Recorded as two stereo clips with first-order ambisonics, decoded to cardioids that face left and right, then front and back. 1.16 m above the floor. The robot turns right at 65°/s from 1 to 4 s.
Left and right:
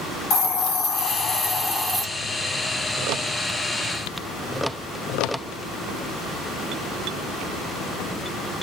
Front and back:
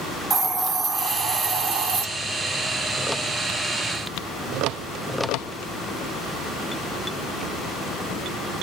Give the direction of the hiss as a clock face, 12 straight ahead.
8 o'clock.